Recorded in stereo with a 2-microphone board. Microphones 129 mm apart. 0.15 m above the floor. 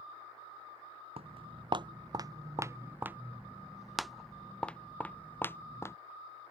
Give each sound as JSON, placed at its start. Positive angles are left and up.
{"t": 1.2, "sound": "footsteps", "side_deg": -45}